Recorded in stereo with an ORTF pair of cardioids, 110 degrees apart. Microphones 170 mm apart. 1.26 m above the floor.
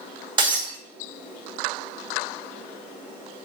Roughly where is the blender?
No blender in this recording.